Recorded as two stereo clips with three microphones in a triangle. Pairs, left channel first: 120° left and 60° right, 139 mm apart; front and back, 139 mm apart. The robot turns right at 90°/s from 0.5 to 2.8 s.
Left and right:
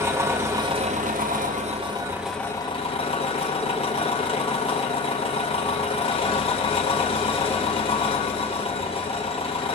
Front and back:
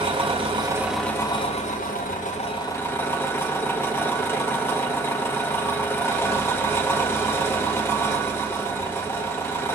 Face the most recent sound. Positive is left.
turn(degrees=75)